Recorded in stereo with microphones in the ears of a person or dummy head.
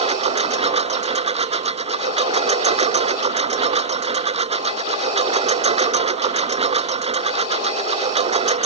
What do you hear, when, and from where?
0.0 s a lawn mower: 40° right (ahead or behind)